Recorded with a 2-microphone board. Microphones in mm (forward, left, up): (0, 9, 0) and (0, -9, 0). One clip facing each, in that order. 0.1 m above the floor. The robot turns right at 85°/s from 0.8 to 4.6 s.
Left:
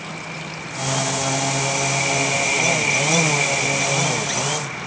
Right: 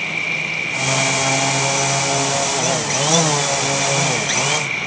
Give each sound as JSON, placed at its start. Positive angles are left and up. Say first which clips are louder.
{"t": 0.0, "sound": "an insect", "louder": "right 10 dB", "azimuth_deg": -85}